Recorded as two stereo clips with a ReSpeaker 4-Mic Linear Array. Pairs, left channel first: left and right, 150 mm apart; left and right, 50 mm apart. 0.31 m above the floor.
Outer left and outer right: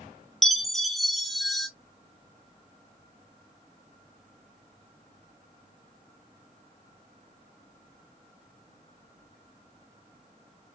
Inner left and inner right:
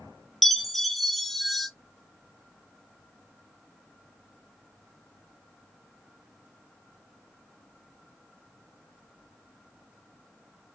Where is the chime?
Centre (ahead or behind), 0.7 m.